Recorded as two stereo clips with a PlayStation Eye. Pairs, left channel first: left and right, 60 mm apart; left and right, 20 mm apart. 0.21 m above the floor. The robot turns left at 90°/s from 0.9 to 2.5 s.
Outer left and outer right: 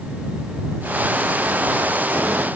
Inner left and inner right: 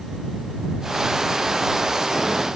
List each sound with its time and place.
Only background noise.